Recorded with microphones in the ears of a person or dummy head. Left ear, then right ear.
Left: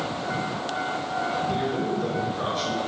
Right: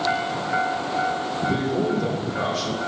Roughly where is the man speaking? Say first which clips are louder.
Right 3 dB; right.